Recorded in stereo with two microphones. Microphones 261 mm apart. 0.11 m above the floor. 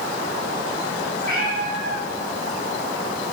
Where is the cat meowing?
35° right (ahead or behind), 2.5 m.